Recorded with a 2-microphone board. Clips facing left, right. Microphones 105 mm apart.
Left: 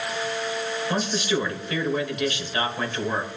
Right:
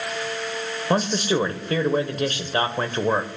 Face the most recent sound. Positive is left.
turn(degrees=-40)  # may be behind; listen again after turning